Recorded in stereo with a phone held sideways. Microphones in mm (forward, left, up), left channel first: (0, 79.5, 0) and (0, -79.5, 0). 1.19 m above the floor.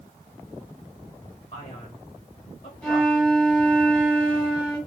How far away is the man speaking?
About 1.3 m.